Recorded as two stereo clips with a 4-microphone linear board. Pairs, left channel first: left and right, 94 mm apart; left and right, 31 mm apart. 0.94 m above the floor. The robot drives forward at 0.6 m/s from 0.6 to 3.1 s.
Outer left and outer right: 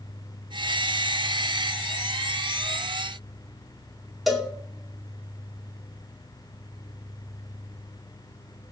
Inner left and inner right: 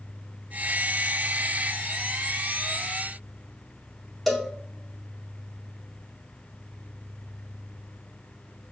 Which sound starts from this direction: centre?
A cowbell, at 4.3 s.